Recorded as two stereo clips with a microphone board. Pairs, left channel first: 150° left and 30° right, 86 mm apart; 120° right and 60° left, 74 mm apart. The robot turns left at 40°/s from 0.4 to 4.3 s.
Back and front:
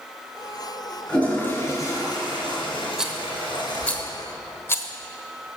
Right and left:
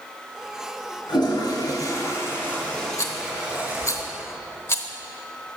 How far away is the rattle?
About 1.0 m.